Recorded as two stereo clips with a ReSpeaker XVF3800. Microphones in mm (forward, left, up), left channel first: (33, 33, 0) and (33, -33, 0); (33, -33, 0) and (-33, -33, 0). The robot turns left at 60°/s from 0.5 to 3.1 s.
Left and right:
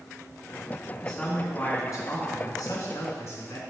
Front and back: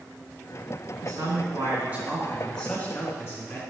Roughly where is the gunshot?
I don't hear a gunshot.